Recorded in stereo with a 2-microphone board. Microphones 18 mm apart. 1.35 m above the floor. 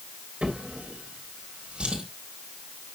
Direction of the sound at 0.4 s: 70° right (ahead or behind).